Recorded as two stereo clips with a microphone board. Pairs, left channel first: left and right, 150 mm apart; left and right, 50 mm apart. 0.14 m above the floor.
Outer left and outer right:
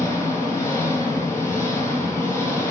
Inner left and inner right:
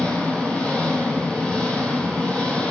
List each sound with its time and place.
0.0 s an engine running: 20° left (ahead or behind), 1.3 m